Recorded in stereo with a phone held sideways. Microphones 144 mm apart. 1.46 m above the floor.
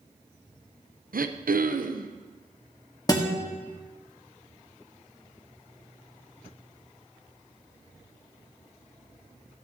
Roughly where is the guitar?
Left.